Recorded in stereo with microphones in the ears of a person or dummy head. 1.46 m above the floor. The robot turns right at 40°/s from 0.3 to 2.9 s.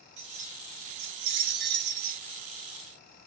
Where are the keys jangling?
135° right, 0.7 m; by 2.2 s 55° right, 0.7 m.